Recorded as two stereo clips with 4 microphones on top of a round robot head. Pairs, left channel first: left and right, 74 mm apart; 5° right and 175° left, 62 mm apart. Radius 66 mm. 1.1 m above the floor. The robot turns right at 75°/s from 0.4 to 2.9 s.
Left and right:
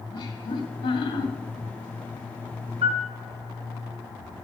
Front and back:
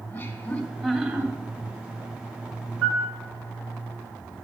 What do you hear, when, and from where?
0.1 s laughter: 60° left, 2.5 m; by 1.3 s 130° left, 2.5 m
2.8 s a piano: 95° right, 1.8 m; by 3.1 s 85° right, 1.8 m